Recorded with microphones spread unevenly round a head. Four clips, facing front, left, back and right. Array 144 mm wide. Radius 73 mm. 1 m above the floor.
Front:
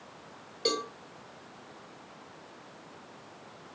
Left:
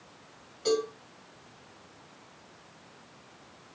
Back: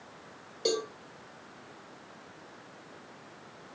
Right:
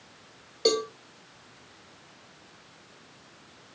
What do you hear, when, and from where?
0.7 s a cowbell: 110° right, 1.7 m